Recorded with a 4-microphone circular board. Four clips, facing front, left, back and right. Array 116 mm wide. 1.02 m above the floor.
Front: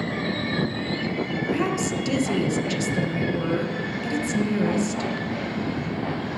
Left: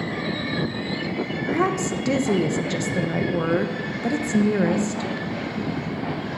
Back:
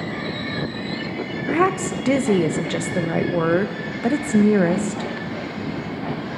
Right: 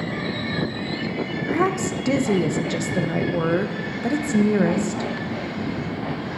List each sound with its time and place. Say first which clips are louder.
1.5 s a woman speaking: right 1 dB, back 7 dB; 175° right, 0.8 m